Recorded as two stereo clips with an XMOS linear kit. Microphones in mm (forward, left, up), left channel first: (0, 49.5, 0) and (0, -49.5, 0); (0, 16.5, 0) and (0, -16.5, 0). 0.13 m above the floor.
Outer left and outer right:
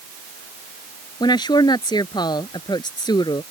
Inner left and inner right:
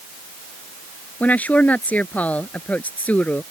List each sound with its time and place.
1.2 s a woman speaking: 50° left (ahead or behind)